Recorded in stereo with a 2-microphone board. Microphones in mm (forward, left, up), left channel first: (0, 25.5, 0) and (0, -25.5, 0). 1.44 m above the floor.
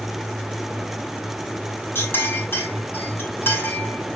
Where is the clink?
50° left (ahead or behind), 6 m.